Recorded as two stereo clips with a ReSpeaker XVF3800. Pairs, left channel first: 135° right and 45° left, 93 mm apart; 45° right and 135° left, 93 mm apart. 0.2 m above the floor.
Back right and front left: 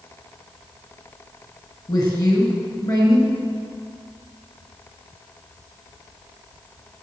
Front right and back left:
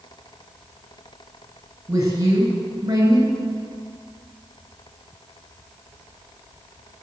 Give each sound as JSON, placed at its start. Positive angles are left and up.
{"t": 1.9, "sound": "a woman speaking", "azimuth_deg": -175, "distance_m": 3.0}